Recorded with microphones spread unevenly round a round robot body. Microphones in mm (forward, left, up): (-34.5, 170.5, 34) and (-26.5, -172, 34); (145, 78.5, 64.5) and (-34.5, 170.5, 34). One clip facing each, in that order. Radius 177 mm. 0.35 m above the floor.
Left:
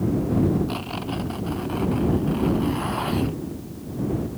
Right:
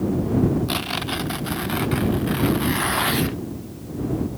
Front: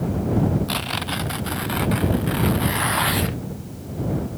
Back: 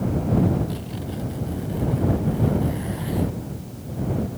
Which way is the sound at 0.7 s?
35° right.